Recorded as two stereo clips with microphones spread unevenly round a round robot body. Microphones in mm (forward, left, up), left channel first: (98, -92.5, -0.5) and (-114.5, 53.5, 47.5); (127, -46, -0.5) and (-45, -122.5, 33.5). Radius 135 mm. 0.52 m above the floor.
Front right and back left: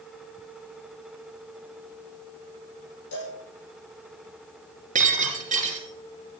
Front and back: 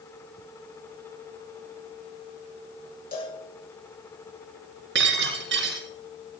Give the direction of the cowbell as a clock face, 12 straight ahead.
1 o'clock.